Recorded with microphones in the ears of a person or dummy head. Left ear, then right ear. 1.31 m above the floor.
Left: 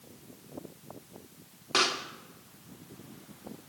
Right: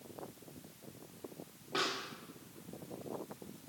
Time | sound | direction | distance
1.7 | a pop | 60° left (ahead or behind) | 2 m